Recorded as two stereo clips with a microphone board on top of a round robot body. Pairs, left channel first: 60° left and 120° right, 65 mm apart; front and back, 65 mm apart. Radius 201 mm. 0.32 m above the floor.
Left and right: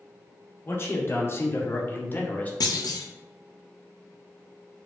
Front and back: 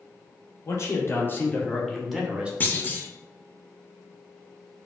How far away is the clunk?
About 0.6 m.